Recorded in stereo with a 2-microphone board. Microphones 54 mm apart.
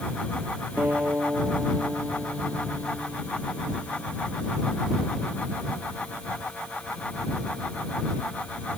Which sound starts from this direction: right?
A guitar, at 0.8 s.